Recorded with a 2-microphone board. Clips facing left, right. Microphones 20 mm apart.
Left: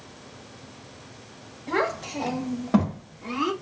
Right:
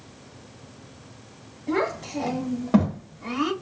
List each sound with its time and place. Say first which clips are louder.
1.7 s a child speaking: even; 15° left (ahead or behind), 1.3 m; by 3.5 s 25° right (ahead or behind), 1.1 m